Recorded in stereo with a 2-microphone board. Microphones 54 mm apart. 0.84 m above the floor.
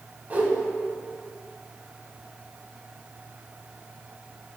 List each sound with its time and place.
0.3 s a whoosh: 30° right (ahead or behind), 0.7 m